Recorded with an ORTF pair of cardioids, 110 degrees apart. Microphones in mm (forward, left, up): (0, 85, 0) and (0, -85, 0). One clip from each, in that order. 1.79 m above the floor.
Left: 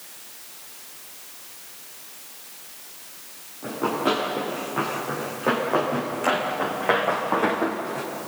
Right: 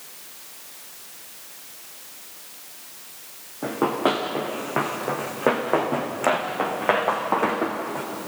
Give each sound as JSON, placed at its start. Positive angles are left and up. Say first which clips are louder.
{"t": 3.6, "sound": "running footsteps", "louder": "right 2 dB", "azimuth_deg": -70, "distance_m": 6.5}